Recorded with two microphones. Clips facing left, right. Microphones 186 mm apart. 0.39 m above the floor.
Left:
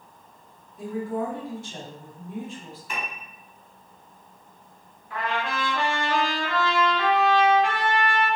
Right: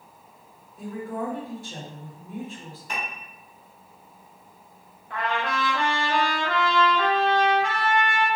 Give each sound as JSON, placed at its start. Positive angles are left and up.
{"t": 0.8, "sound": "a woman speaking", "side_deg": -40, "distance_m": 1.8}
{"t": 2.9, "sound": "a piano", "side_deg": -40, "distance_m": 0.9}
{"t": 5.1, "sound": "a trumpet", "side_deg": -60, "distance_m": 0.9}